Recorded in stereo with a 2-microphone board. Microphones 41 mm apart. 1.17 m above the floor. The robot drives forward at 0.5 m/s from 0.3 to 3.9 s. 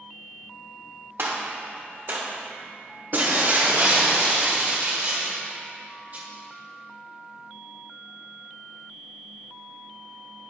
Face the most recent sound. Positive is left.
turn(degrees=-40)  # may be behind; listen again after turning